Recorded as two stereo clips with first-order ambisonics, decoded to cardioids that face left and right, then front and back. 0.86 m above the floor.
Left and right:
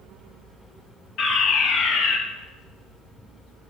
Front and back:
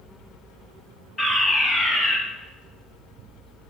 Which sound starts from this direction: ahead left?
A fire alarm, at 1.2 s.